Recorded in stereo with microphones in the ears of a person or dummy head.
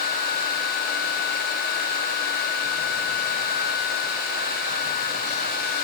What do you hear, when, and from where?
Only background noise.